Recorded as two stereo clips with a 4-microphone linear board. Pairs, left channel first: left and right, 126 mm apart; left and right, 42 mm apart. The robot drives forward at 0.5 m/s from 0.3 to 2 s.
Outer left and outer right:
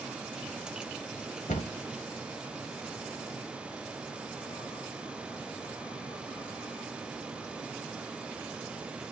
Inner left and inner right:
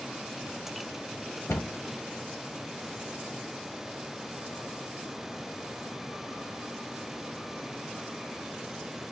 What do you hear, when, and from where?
1.5 s a cupboard door: 70° left (ahead or behind), 0.8 m; by 1.7 s 75° left (ahead or behind), 0.8 m